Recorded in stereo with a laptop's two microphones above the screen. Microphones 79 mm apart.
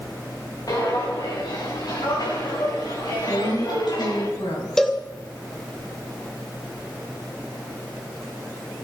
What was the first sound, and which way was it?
Footsteps, 55° left (ahead or behind).